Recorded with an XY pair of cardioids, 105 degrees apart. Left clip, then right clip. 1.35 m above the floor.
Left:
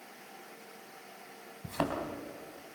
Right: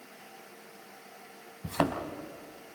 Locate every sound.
1.6 s a thud: 30° right, 3 m